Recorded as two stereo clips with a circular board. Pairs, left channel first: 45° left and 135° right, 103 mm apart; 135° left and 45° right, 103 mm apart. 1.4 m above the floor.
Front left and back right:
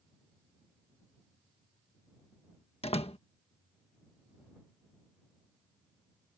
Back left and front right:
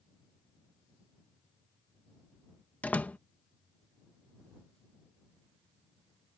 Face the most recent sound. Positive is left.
turn(degrees=60)